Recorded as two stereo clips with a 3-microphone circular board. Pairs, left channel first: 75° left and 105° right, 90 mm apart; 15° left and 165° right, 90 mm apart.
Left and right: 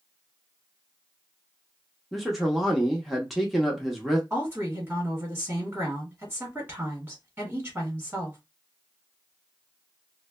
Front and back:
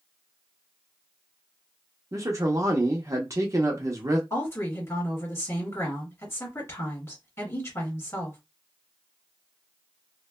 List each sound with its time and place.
2.1 s a man speaking: 165° left, 0.7 m
4.3 s a woman speaking: 35° right, 1.4 m